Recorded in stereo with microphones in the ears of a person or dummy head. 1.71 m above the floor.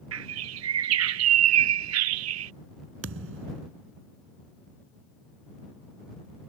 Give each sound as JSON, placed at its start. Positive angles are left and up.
{"t": 0.1, "sound": "a bird", "side_deg": -75}
{"t": 3.0, "sound": "a thud", "side_deg": -75}